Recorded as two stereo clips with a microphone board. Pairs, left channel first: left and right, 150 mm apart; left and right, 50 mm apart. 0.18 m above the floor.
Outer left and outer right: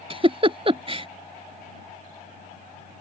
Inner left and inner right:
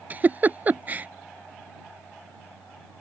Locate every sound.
0.1 s a giggle: 40° right (ahead or behind)